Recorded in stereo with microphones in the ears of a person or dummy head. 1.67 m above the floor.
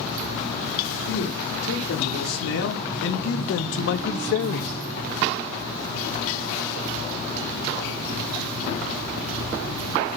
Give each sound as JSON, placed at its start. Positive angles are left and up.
{"t": 1.1, "sound": "a man speaking", "side_deg": 80, "distance_m": 5.5}